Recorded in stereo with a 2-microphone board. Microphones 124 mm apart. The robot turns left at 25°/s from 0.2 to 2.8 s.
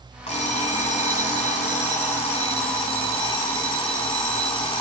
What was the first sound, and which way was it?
An alarm clock, 115° left.